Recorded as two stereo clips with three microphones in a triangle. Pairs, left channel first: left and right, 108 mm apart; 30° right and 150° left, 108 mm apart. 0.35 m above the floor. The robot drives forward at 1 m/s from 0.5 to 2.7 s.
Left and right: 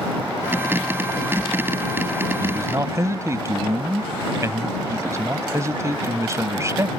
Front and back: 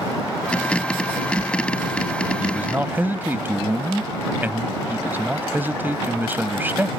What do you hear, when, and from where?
2.4 s a man speaking: 135° right; by 6.9 s 145° right